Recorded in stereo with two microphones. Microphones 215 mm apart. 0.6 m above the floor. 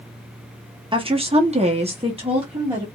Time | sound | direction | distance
0.9 | a woman speaking | 25° right (ahead or behind) | 0.6 m